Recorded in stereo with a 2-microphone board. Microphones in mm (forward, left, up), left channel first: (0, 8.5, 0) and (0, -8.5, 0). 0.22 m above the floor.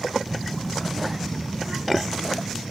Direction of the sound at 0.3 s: 30° left (ahead or behind).